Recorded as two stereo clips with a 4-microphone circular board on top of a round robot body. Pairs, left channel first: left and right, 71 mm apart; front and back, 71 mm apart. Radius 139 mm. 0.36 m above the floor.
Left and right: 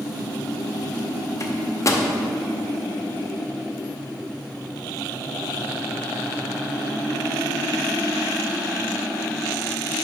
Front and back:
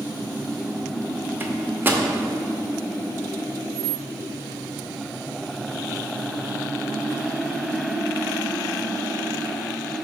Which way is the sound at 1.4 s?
125° left.